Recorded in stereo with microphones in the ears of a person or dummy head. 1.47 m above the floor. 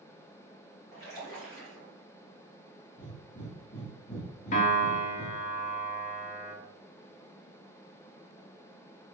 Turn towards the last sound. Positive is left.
turn(degrees=40)  # may be behind; listen again after turning